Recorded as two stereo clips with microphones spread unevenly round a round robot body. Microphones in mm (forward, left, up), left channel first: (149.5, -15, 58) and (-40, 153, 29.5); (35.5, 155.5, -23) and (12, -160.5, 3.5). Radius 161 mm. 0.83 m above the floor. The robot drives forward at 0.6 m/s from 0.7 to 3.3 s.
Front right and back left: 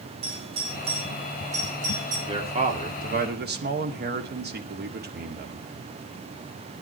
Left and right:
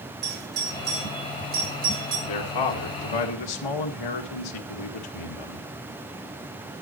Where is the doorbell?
155° right, 3 m; by 2.2 s 160° right, 4 m.